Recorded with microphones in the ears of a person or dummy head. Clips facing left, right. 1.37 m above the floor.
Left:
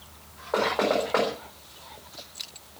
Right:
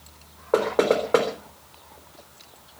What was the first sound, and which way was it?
Knocking, 45° right (ahead or behind).